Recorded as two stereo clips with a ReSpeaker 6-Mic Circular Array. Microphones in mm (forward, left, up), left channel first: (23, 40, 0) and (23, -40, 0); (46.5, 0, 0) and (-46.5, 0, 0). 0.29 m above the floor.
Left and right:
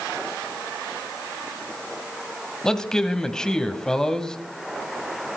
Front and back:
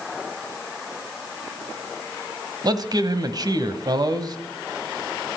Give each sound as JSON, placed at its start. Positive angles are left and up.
{"t": 2.6, "sound": "a man speaking", "azimuth_deg": 170, "distance_m": 1.3}